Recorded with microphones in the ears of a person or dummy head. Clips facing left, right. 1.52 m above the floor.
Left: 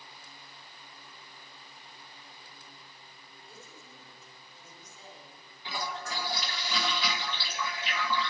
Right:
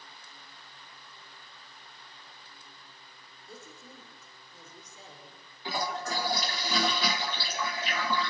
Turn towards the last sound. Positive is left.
turn(degrees=-40)  # may be behind; listen again after turning